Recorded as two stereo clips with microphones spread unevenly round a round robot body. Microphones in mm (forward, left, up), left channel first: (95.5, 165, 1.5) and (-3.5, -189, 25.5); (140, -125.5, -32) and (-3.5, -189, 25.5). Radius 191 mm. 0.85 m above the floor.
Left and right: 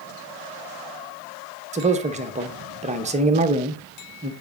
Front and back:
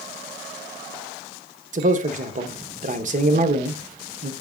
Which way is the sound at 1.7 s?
165° right.